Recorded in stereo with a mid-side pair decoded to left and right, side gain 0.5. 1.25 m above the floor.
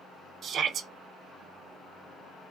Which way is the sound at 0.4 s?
55° right.